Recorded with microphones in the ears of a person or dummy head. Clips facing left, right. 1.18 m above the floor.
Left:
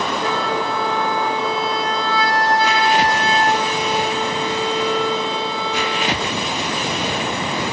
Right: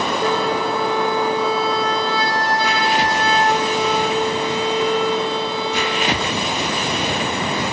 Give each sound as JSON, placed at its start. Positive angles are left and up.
{"t": 0.2, "sound": "a flute", "side_deg": -90, "distance_m": 5.0}